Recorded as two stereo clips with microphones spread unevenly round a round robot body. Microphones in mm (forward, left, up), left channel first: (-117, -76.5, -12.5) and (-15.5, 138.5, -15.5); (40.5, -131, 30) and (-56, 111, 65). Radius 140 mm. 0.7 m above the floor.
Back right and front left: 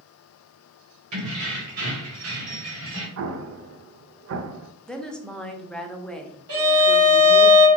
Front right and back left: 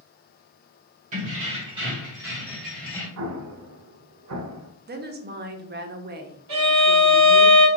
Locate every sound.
1.1 s keys jangling: 50° left, 2 m; by 3.1 s 15° left, 1.6 m
3.2 s an explosion: 85° left, 0.6 m
4.9 s a woman speaking: 160° left, 0.8 m
6.5 s a violin: 85° left, 2 m